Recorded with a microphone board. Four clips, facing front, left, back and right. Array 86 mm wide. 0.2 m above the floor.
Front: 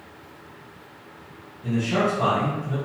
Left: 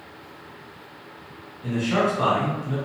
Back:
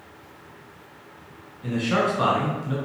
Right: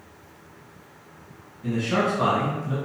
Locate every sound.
1.6 s a man speaking: straight behind, 1.5 m